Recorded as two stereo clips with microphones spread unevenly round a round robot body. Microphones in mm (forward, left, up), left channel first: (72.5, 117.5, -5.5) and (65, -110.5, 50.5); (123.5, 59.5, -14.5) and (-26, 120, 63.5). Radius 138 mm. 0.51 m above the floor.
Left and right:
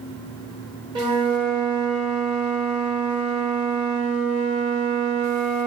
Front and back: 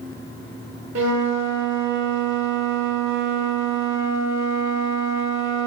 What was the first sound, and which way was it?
A flute, 170° right.